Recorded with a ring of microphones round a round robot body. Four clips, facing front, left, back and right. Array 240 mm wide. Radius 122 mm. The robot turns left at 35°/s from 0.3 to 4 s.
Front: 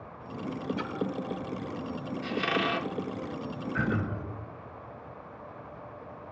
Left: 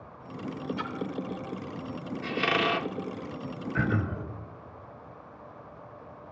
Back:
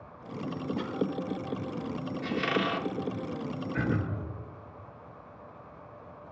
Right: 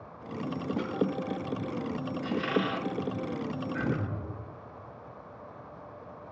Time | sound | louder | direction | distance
0.8 | a splash | right 2 dB, even | 65° left | 1.8 m
2.2 | a squeak | left 2 dB, even | 105° left | 0.6 m
3.7 | throat clearing | left 6 dB, front 1 dB | 115° left | 2.5 m